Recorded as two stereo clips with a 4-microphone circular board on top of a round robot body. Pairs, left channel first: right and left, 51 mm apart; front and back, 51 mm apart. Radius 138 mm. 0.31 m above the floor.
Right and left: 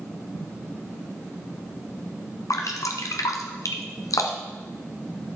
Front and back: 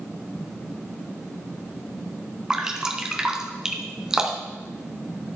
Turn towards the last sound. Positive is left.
turn(degrees=-105)